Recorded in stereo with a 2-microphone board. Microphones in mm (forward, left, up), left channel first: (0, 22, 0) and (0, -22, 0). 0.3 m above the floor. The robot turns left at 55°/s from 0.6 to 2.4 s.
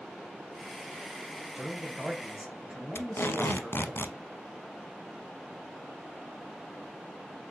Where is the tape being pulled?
65° left (ahead or behind), 0.6 m.